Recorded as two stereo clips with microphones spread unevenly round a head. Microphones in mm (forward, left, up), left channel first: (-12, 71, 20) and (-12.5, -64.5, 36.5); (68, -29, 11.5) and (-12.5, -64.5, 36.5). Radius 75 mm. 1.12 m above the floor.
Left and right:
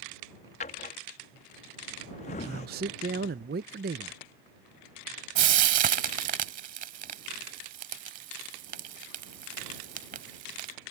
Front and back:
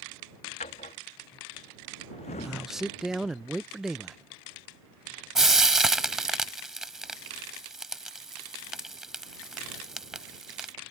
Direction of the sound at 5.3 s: 90° right.